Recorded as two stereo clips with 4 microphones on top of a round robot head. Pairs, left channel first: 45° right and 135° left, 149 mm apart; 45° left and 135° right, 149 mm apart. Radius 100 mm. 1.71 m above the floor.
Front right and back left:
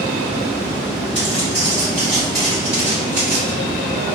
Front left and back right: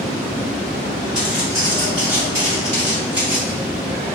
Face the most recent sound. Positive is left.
turn(degrees=165)